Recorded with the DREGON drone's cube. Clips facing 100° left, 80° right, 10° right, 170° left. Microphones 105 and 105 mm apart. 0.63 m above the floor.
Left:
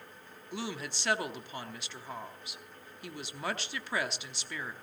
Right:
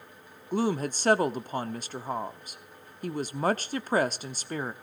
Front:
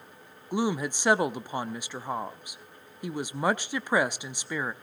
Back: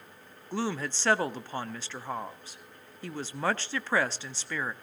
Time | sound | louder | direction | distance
0.5 | a woman speaking | right 11 dB, front 4 dB | 80° right | 0.7 m